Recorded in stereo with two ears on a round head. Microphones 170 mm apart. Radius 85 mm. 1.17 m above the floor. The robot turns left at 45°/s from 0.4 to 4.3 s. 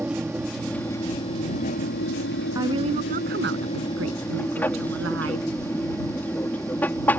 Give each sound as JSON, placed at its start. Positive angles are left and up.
{"t": 0.0, "sound": "an aircraft", "azimuth_deg": -175}
{"t": 2.5, "sound": "a woman speaking", "azimuth_deg": -15}